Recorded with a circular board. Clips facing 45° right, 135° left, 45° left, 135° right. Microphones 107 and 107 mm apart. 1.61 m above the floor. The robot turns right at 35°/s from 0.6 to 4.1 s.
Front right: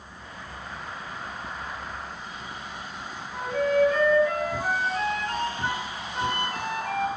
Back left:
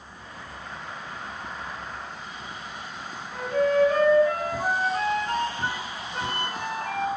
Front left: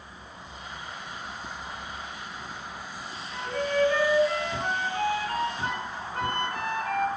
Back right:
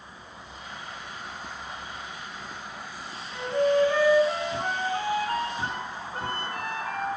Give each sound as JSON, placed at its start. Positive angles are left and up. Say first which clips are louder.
{"t": 3.3, "sound": "a flute", "louder": "back left 1 dB, back right 5 dB", "azimuth_deg": 150, "distance_m": 4.0}